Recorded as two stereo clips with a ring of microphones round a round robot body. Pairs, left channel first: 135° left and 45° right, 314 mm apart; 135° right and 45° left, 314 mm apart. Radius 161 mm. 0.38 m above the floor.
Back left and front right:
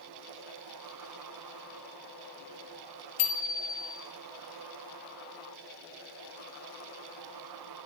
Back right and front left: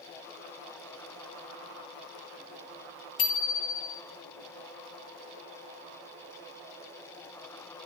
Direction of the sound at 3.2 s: 175° left.